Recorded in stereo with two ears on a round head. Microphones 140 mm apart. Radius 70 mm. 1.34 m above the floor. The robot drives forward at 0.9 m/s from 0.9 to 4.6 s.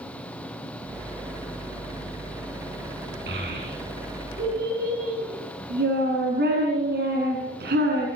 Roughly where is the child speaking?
Right.